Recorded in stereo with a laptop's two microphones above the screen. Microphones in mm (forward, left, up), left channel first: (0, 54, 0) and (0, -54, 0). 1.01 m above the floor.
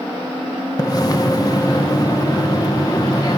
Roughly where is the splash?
Left.